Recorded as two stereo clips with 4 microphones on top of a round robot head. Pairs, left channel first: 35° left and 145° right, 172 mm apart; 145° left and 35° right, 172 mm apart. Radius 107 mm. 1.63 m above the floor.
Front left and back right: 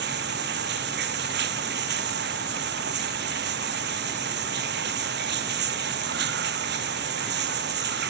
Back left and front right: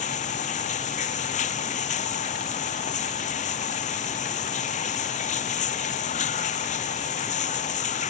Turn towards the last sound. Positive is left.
turn(degrees=-170)